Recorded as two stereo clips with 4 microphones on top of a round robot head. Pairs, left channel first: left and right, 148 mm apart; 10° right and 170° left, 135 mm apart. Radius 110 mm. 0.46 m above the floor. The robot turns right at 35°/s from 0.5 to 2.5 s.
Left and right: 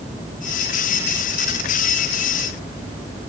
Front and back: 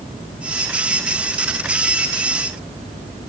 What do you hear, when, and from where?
Only background noise.